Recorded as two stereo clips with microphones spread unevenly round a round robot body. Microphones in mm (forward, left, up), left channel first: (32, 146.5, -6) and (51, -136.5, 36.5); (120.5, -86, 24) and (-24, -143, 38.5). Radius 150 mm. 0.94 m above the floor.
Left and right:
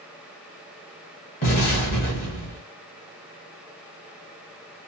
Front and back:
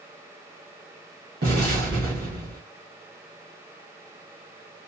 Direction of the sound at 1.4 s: 155° left.